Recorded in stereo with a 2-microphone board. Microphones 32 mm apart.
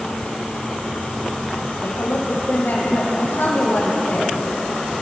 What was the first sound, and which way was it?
A woman speaking, 75° left (ahead or behind).